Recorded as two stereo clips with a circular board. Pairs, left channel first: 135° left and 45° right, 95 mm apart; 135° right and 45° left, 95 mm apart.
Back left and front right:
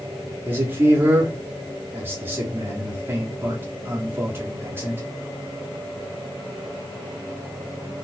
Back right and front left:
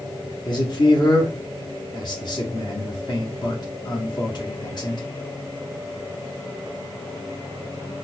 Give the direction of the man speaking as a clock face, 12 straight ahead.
4 o'clock.